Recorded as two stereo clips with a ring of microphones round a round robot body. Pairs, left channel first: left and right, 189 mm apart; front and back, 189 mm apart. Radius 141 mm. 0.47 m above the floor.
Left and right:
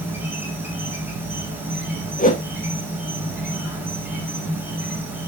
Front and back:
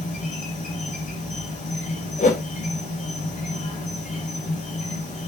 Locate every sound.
0.0 s an insect: 20° right, 2.5 m
2.2 s a whoosh: 45° left, 1.1 m